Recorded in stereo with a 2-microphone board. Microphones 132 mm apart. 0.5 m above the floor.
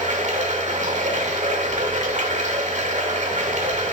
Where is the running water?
65° right (ahead or behind), 0.7 m.